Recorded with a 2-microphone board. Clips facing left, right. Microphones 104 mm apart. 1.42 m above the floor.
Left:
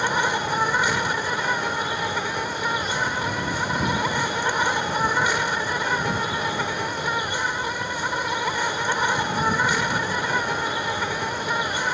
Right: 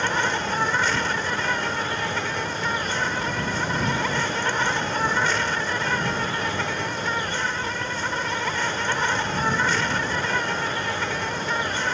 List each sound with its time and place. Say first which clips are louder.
0.0 s an insect: left 1 dB; 15° left (ahead or behind)